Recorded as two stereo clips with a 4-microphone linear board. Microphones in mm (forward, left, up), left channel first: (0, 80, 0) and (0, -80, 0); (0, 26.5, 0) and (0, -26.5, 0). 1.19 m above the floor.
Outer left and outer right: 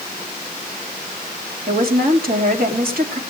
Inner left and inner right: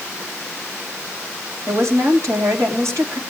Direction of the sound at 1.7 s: 65° right (ahead or behind).